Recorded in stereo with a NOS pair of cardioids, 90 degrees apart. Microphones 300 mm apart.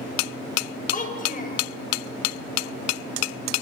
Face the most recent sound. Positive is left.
turn(degrees=30)